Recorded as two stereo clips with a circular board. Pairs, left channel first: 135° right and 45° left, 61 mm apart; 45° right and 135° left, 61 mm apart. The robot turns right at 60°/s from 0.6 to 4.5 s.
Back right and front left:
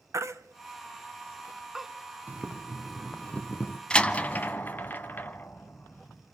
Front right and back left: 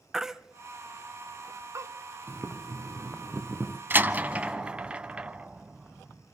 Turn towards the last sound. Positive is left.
turn(degrees=-165)